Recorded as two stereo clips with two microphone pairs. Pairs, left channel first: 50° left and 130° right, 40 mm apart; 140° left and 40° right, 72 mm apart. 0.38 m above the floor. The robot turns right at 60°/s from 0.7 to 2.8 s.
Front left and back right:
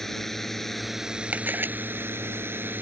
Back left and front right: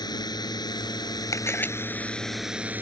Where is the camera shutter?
175° right; by 1.7 s 155° right.